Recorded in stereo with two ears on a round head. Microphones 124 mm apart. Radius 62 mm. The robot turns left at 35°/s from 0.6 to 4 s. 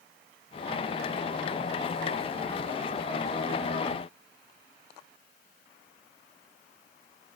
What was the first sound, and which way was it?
Only background noise.